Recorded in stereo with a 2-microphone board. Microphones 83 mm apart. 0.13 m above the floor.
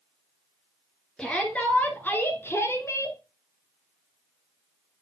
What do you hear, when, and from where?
1.2 s a shout: 10° left (ahead or behind), 1.4 m; by 3.2 s 40° left (ahead or behind), 1.4 m